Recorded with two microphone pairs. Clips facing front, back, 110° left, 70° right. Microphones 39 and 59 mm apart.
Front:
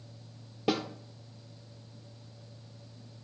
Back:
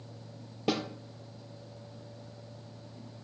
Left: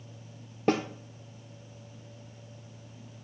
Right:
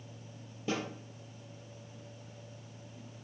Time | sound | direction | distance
0.7 | a snare drum | 90° left | 1.5 m